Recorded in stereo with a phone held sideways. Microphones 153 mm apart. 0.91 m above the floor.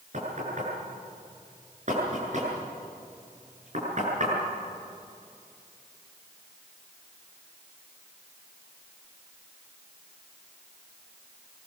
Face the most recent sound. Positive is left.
turn(degrees=-50)  # may be behind; listen again after turning